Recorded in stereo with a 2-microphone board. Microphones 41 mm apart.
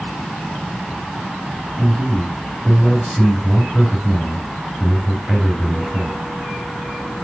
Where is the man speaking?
15° left (ahead or behind), 2.5 m.